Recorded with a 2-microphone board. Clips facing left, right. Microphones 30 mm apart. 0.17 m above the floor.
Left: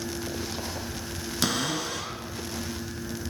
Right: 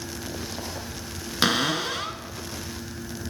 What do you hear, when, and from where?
1.4 s a cupboard door: 35° right (ahead or behind), 1.2 m